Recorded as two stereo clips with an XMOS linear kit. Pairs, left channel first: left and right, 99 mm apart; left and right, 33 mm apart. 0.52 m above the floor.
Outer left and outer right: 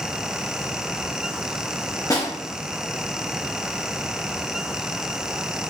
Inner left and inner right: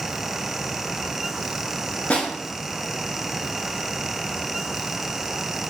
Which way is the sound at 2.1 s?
35° left (ahead or behind).